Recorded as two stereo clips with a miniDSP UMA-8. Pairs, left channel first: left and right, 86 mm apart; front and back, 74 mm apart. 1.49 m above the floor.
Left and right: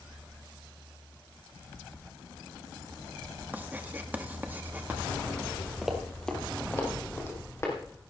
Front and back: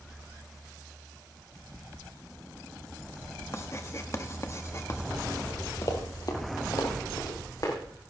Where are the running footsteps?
10° right, 2 m; by 7.8 s 35° left, 4 m.